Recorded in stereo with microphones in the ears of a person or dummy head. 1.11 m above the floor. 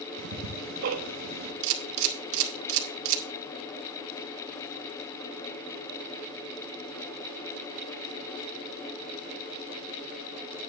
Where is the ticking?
70° right (ahead or behind), 1.3 m.